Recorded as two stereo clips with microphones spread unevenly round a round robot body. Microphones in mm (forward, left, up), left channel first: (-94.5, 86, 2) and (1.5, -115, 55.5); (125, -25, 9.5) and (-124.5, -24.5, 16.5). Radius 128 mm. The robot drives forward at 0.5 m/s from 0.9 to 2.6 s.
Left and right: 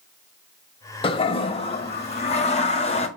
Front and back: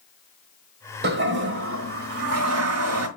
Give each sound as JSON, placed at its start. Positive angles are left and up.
{"t": 1.0, "sound": "a toilet flushing", "azimuth_deg": 150, "distance_m": 1.2}